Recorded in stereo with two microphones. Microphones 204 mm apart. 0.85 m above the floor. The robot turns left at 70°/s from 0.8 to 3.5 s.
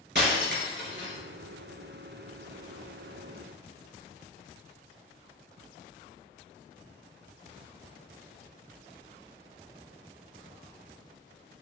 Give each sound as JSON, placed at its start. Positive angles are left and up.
{"t": 0.1, "sound": "breaking glass", "side_deg": -60, "distance_m": 3.0}